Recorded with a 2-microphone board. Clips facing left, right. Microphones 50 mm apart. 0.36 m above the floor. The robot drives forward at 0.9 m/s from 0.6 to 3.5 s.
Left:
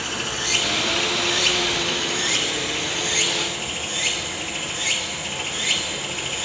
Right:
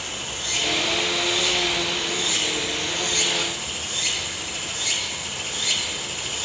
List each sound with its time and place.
0.0 s running water: 75° left (ahead or behind), 1.5 m; by 6.5 s 35° left (ahead or behind), 2.5 m